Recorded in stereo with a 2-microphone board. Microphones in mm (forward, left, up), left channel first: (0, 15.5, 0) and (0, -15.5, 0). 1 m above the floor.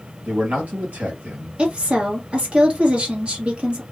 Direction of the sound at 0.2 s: 60° right (ahead or behind).